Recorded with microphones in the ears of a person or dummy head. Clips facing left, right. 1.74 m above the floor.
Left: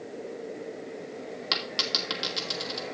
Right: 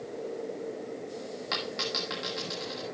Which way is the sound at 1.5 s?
45° left (ahead or behind).